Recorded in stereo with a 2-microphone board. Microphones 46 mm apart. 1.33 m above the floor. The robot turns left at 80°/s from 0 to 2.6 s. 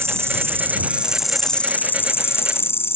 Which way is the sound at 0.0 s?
75° right.